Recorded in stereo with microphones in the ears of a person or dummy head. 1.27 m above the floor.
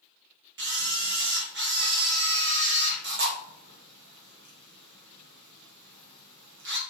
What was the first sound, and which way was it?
A camera shutter, 55° right (ahead or behind).